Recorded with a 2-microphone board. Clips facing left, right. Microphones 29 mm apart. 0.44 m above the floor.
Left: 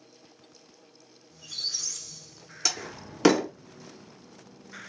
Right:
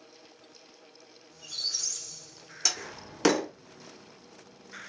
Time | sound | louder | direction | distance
1.3 | a squeak | left 1 dB | 10° left (ahead or behind) | 1.3 m
2.6 | a door slam | left 1 dB | 5° left (ahead or behind) | 0.5 m